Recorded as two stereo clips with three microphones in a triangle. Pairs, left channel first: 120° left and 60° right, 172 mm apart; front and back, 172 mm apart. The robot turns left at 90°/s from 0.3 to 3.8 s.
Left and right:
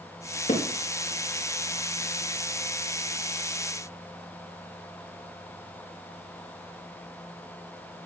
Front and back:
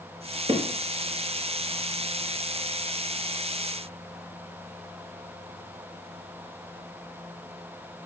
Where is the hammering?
140° left, 2 m; by 0.7 s 130° left, 2 m.